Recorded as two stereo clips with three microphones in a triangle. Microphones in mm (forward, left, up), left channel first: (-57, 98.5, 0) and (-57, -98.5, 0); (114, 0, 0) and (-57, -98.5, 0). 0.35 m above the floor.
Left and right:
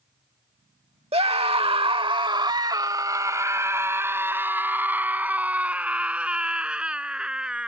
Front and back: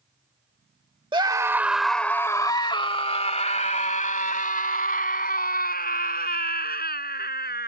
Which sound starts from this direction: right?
A scream, at 1.1 s.